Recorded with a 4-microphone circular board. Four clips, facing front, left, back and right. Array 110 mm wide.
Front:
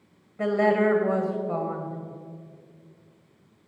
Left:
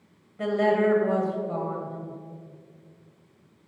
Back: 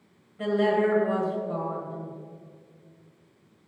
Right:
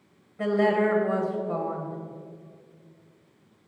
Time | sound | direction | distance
0.4 | a woman speaking | 10° right | 1.3 m